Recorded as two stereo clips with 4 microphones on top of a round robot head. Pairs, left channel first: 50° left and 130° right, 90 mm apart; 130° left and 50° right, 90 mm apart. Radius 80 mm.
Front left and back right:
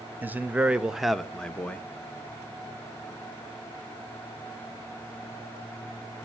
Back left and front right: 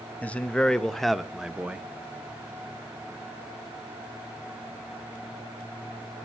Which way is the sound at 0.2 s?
170° right.